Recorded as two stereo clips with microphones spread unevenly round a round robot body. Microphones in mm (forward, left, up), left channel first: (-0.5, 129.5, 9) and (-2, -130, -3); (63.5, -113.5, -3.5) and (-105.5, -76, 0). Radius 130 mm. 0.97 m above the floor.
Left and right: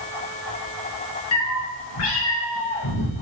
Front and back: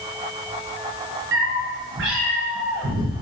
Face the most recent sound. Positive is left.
turn(degrees=110)